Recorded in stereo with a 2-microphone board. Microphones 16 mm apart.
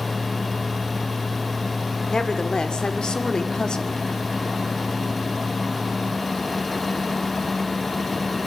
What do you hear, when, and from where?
2.1 s a woman speaking: 55° left (ahead or behind), 2.5 m; by 4.0 s 60° left (ahead or behind), 1.8 m